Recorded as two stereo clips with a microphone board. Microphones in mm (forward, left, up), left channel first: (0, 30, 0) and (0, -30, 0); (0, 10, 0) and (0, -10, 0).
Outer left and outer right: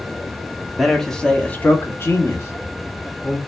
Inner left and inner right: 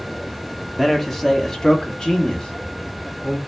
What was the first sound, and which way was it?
A man speaking, centre (ahead or behind).